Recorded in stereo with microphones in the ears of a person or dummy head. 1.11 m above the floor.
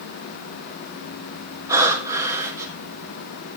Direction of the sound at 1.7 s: 20° right (ahead or behind).